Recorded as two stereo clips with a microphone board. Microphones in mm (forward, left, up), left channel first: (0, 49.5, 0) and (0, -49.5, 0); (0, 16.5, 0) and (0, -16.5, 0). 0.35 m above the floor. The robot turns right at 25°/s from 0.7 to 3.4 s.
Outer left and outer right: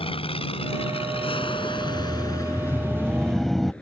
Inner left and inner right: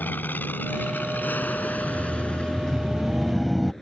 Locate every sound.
0.0 s an aircraft: 65° left (ahead or behind); by 3.8 s 10° left (ahead or behind)
1.8 s laughter: 140° left; by 3.7 s straight behind